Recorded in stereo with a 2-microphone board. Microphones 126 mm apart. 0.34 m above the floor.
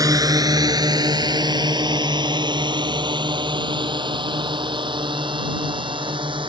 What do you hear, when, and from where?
0.0 s a drone: 25° right (ahead or behind); by 6.5 s 40° right (ahead or behind)